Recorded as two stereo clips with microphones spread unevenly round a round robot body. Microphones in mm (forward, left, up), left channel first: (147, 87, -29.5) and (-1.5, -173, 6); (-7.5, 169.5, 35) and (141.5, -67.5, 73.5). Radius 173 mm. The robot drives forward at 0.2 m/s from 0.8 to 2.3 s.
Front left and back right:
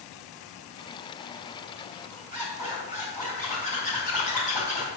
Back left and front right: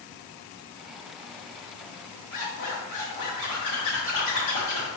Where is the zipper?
125° left, 3.5 m.